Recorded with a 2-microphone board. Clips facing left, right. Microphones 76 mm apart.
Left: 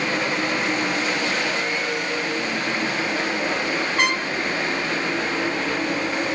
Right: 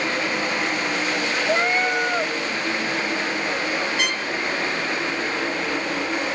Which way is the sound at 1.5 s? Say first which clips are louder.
Right 4 dB; 55° right (ahead or behind).